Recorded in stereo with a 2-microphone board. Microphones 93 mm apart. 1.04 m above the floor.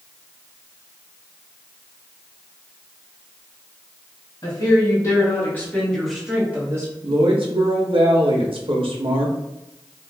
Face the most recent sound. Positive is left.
turn(degrees=-70)  # may be behind; listen again after turning